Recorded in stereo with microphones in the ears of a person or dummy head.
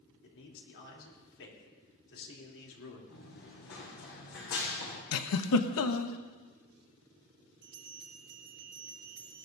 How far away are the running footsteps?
About 4.5 m.